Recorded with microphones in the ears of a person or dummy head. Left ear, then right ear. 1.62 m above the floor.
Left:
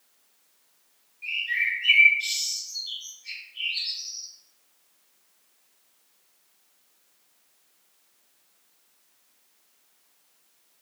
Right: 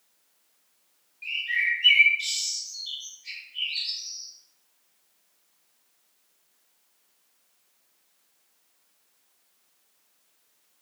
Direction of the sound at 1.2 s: 40° right (ahead or behind).